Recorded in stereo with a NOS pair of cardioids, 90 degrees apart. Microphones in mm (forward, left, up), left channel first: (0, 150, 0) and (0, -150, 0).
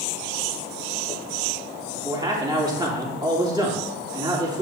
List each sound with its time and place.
1.9 s a man speaking: 15° right, 3.5 m